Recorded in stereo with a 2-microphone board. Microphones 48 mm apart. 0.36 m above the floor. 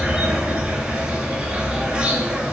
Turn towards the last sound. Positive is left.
turn(degrees=-30)  # may be behind; listen again after turning